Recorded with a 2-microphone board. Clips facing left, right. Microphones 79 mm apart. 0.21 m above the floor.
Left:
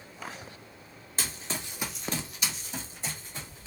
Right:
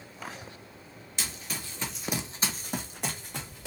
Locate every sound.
1.2 s running footsteps: 40° left (ahead or behind), 0.8 m; by 3.7 s 80° right, 1.2 m